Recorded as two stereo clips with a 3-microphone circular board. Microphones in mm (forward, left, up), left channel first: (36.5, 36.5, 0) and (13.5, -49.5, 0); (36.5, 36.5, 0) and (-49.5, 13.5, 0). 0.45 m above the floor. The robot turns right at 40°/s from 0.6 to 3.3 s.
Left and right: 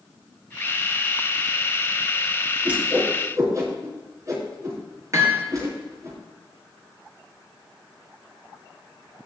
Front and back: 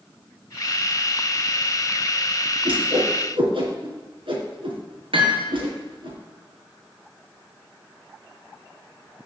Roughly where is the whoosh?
Behind.